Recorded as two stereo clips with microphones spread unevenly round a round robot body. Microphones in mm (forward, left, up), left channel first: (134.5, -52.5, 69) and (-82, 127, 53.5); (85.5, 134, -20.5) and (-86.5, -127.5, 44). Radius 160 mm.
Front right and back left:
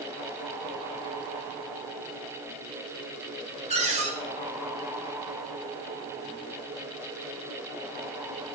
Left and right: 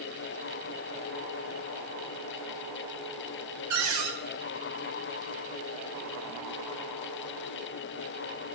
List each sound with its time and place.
3.7 s a cupboard door: 160° right, 1.6 m